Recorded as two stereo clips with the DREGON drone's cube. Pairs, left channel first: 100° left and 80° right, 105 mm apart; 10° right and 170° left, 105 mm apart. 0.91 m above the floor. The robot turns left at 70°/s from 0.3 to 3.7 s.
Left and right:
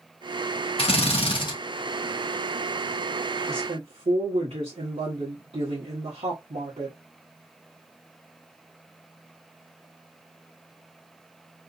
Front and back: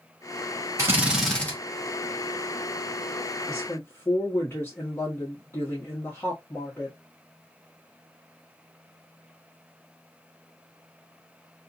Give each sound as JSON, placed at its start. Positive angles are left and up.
{"t": 0.8, "sound": "a drill", "azimuth_deg": 110, "distance_m": 1.4}
{"t": 3.5, "sound": "a woman speaking", "azimuth_deg": -60, "distance_m": 1.6}